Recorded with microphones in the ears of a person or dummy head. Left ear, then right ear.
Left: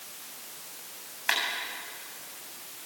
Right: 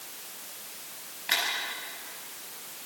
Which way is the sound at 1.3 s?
55° left (ahead or behind).